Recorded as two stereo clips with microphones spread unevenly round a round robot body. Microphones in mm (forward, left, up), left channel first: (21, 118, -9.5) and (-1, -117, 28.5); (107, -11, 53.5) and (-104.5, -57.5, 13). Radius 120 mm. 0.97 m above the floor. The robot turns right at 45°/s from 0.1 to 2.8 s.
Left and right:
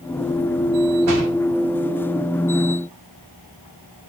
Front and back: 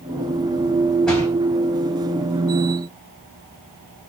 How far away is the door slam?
About 4 m.